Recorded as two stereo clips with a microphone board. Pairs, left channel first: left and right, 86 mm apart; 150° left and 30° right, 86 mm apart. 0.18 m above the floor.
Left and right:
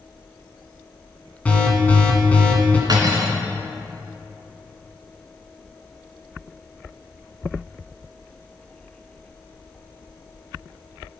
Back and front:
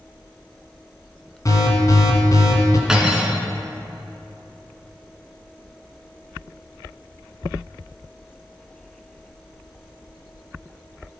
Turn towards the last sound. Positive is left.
turn(degrees=-110)